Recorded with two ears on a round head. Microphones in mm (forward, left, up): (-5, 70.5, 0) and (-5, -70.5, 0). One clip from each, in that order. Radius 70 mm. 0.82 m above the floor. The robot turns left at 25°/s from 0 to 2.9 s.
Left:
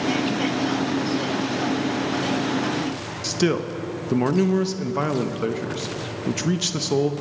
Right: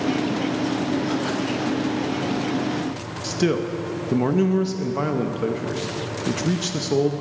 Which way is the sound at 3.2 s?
20° left (ahead or behind).